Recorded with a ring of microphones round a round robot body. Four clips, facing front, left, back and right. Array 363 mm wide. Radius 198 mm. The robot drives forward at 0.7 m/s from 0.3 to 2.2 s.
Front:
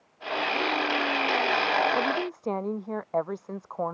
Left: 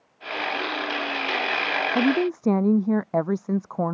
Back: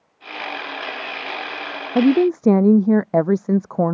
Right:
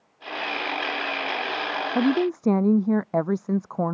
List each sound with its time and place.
1.9 s a woman speaking: straight behind